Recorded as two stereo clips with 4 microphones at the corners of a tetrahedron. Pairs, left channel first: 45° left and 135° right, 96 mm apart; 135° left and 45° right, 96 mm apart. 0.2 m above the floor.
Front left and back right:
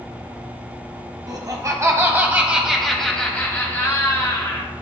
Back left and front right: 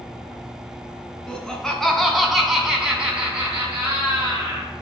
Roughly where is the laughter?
Behind right.